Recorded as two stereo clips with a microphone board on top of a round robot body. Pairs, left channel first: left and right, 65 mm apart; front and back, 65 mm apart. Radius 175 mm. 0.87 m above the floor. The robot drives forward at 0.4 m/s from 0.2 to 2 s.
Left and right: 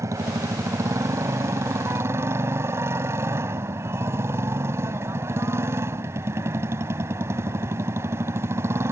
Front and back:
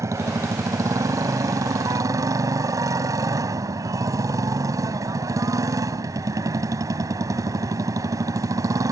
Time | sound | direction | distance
0.0 | a motorcycle | 140° right | ?